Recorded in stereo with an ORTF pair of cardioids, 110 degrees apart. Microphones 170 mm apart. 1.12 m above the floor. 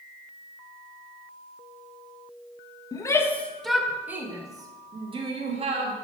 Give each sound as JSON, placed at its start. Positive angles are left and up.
{"t": 2.9, "sound": "a shout", "azimuth_deg": 20, "distance_m": 1.3}